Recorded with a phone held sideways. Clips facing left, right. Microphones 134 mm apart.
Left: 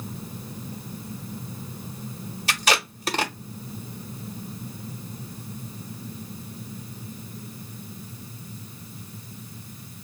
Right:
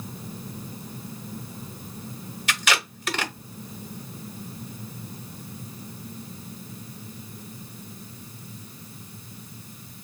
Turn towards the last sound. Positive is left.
turn(degrees=35)  # may be behind; listen again after turning